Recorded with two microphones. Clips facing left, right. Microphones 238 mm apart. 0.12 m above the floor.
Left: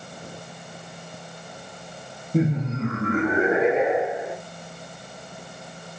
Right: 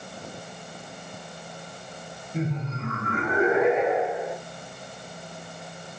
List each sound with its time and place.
2.3 s laughter: 50° left (ahead or behind), 2.5 m; by 4.3 s 25° left (ahead or behind), 5 m